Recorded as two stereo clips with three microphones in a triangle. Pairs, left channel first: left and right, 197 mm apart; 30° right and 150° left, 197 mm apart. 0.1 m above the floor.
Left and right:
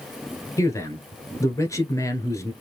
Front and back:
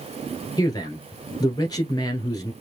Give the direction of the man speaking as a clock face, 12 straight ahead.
11 o'clock.